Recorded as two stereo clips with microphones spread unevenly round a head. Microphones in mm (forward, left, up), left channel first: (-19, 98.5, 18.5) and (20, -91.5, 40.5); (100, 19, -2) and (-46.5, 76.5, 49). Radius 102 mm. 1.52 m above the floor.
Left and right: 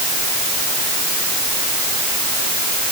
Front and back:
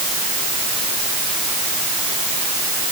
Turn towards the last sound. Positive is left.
No sound to turn to.